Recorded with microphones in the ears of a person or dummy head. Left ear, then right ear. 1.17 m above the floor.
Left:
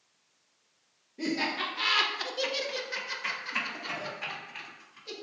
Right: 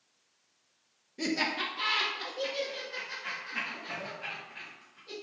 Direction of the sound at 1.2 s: 25° right (ahead or behind).